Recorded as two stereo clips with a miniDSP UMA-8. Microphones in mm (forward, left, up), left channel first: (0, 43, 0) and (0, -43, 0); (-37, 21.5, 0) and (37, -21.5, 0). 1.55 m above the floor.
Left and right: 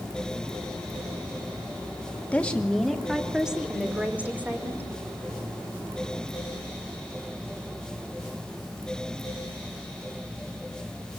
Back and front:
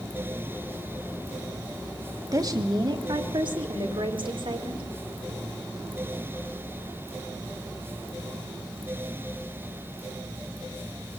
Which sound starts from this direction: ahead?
A woman speaking, at 2.3 s.